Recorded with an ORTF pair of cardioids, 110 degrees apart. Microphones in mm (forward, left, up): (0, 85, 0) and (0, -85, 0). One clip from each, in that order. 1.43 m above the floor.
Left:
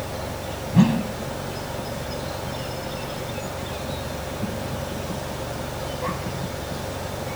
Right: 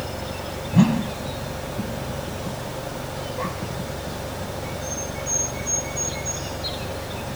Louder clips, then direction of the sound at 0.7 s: Even; 5° right.